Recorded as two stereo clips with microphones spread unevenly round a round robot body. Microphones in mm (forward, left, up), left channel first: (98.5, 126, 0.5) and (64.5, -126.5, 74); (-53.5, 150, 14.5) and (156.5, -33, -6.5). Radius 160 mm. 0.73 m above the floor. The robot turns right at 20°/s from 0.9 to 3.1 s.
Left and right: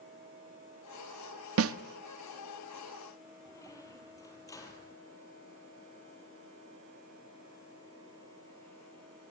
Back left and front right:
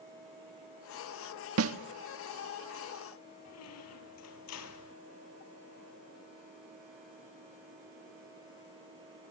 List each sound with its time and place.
1.6 s a snare drum: 60° right, 1.0 m; by 1.8 s 55° right, 1.0 m
3.5 s a squeak: 170° left, 1.5 m